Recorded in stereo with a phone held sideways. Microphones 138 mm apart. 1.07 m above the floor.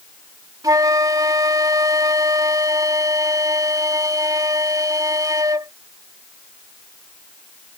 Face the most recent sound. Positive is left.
turn(degrees=-25)  # may be behind; listen again after turning